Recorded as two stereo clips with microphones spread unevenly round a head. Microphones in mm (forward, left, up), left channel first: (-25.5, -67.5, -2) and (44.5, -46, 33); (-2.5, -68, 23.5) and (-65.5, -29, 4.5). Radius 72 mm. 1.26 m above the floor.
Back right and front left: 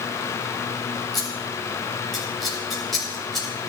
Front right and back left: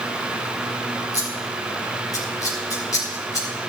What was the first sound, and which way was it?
Scissors, 75° right.